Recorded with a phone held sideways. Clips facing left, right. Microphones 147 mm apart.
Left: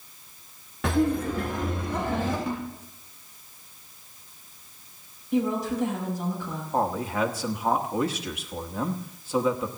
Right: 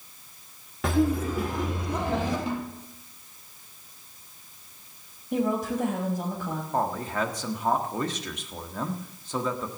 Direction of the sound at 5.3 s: 50° right (ahead or behind).